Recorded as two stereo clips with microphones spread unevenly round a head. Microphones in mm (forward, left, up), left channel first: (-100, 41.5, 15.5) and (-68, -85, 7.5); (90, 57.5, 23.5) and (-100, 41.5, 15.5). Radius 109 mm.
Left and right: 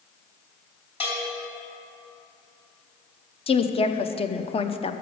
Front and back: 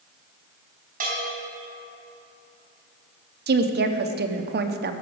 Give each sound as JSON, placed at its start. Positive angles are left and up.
{"t": 1.0, "sound": "a bell", "azimuth_deg": 140, "distance_m": 4.0}
{"t": 3.5, "sound": "a woman speaking", "azimuth_deg": 150, "distance_m": 0.9}